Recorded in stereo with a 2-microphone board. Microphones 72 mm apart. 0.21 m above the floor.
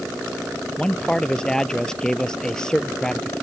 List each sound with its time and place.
0.8 s a man speaking: 10° left (ahead or behind)